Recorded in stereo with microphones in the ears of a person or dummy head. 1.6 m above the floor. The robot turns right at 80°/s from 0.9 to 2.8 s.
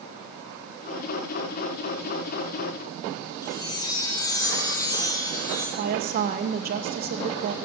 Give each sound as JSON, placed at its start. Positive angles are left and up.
{"t": 3.4, "sound": "a chime", "side_deg": 15, "distance_m": 3.5}
{"t": 5.8, "sound": "a woman speaking", "side_deg": -50, "distance_m": 2.0}